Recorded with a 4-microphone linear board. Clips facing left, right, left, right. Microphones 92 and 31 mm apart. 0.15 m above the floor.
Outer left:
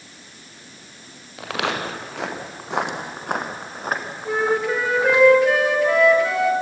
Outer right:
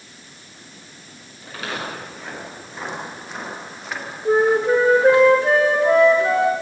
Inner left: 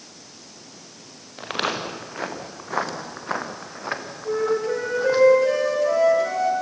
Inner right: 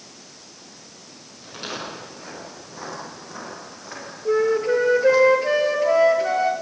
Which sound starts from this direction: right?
A flute, at 4.2 s.